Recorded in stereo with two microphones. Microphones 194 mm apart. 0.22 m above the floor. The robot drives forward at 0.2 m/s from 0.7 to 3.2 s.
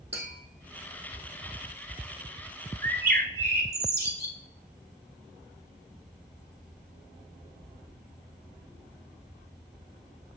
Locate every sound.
0.1 s tapping: 70° right (ahead or behind), 3 m
2.8 s a bird: 60° right (ahead or behind), 0.8 m; by 4.3 s 55° right (ahead or behind), 0.8 m